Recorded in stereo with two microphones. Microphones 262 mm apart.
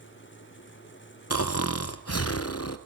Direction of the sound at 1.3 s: 65° left (ahead or behind).